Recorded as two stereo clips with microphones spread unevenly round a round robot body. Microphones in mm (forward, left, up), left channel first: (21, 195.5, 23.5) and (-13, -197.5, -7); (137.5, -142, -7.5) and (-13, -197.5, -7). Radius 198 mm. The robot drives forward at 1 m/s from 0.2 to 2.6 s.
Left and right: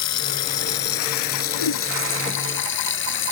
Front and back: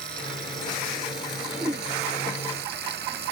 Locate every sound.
0.0 s running water: 135° left; by 3.3 s 145° left
1.5 s a whoosh: 125° left; by 1.9 s 130° left